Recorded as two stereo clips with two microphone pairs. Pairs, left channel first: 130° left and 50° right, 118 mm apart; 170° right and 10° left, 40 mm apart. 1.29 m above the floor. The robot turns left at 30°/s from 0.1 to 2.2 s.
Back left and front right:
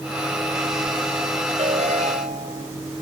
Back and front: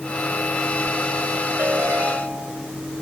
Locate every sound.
1.6 s a ringtone: 20° right; by 2.7 s 40° right